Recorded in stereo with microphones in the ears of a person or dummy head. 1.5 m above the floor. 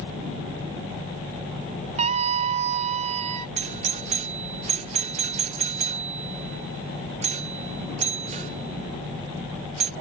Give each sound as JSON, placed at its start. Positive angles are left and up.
{"t": 2.0, "sound": "a scream", "side_deg": -50}
{"t": 3.6, "sound": "a doorbell", "side_deg": -35}